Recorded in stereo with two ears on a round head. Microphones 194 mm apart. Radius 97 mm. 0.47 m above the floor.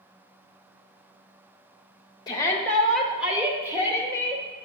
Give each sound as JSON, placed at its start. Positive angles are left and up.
{"t": 2.3, "sound": "a shout", "side_deg": 20, "distance_m": 0.7}